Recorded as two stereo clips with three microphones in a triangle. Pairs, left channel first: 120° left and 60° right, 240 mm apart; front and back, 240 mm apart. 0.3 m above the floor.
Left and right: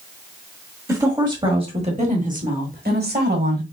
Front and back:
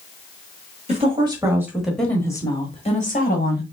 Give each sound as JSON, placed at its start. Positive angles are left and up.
{"t": 0.9, "sound": "a woman speaking", "azimuth_deg": -130, "distance_m": 1.4}